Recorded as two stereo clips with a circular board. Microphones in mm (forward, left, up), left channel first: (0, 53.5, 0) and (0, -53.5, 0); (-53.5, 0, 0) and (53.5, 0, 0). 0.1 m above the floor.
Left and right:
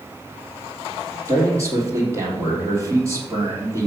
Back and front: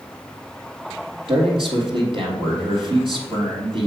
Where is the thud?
No thud in this recording.